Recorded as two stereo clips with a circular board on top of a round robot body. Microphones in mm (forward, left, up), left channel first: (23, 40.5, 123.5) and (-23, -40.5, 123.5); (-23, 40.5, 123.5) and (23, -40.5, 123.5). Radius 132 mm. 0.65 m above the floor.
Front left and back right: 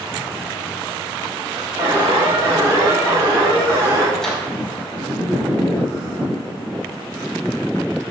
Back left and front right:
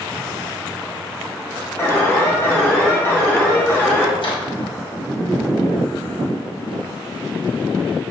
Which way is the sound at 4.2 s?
145° left.